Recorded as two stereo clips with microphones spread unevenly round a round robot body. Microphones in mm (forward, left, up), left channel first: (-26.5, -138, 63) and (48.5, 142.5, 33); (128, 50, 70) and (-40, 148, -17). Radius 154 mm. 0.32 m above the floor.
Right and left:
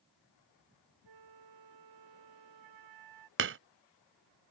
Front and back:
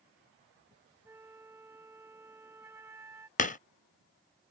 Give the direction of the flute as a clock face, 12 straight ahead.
10 o'clock.